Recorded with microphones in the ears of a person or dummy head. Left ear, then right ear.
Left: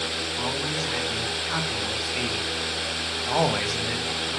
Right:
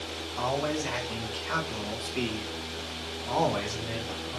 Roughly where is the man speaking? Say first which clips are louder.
Right 3 dB; centre.